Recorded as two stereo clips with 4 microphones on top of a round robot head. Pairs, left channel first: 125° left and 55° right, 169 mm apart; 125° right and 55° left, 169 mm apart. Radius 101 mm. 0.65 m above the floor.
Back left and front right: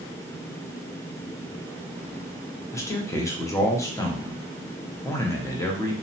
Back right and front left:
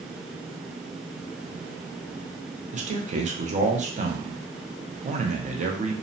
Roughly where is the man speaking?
Ahead left.